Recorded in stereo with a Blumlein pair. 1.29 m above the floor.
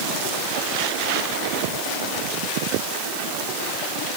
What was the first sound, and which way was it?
Only background noise.